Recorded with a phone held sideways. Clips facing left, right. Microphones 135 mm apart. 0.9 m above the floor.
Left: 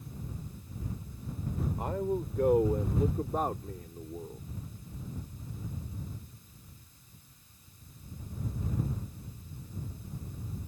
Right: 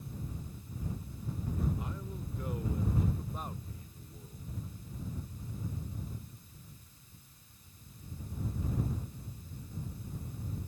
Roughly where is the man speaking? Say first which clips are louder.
Left 11 dB; left.